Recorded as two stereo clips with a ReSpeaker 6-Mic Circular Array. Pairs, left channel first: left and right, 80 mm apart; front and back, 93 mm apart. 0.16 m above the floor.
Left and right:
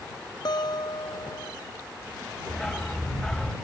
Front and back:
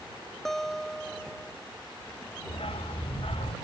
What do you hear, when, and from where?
0.5 s a guitar: 85° left
2.5 s a dog barking: 5° left